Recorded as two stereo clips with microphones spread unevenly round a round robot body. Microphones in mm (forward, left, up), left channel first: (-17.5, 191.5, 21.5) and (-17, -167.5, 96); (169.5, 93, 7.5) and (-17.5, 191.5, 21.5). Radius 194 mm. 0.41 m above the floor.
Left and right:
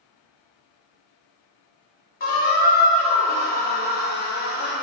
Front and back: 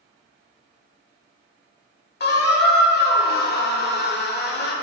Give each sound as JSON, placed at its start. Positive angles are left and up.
{"t": 2.2, "sound": "a squeak", "azimuth_deg": 20, "distance_m": 0.8}